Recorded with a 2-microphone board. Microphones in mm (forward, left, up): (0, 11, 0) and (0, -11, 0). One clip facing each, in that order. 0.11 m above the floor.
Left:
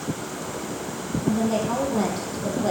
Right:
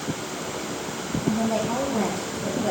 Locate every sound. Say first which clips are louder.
1.2 s a woman speaking: left 1 dB; 65° left (ahead or behind), 4.5 m